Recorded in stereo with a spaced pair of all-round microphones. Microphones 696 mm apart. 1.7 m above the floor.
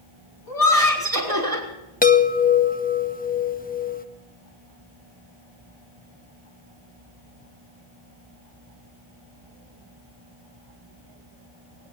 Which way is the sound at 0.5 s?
30° right (ahead or behind).